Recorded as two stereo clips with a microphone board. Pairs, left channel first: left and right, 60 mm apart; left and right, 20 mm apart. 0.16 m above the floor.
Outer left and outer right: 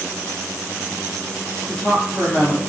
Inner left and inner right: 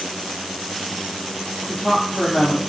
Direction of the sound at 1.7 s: 10° left (ahead or behind).